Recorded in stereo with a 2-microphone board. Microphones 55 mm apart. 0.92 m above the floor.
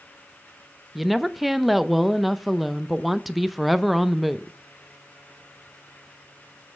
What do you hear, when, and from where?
0.9 s a woman speaking: centre (ahead or behind), 0.5 m